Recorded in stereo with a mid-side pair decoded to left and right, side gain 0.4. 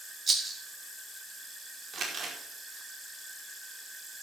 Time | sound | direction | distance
0.3 | a rattle | 45° right | 5 m
1.9 | crumpling | 55° right | 5 m